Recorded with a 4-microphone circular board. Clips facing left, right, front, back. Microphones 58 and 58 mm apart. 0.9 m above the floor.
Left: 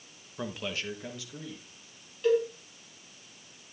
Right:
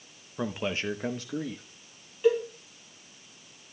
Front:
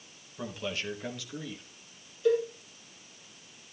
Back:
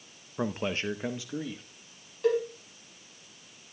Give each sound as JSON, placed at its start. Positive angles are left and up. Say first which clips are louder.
{"t": 0.4, "sound": "a man speaking", "louder": "right 5 dB, back 5 dB", "azimuth_deg": -160, "distance_m": 0.7}
{"t": 2.2, "sound": "a cowbell", "louder": "right 1 dB, even", "azimuth_deg": -165, "distance_m": 3.0}